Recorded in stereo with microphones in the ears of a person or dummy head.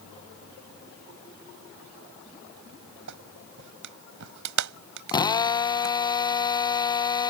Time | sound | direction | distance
3.1 | a clap | 65° right (ahead or behind) | ?
5.1 | a drill | 20° left (ahead or behind) | ?